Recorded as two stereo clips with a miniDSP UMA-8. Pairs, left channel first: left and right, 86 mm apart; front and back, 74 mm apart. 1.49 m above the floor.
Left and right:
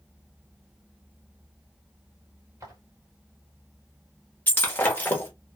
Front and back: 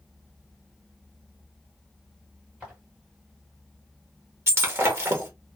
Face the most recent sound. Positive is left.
turn(degrees=145)